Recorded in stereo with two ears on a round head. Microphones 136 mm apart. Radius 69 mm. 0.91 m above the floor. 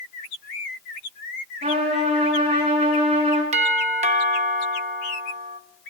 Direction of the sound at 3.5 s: 50° right (ahead or behind).